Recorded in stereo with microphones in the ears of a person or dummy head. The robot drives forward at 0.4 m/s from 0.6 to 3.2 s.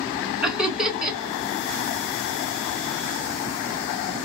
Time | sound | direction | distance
0.4 | laughter | 5° right (ahead or behind) | 1.5 m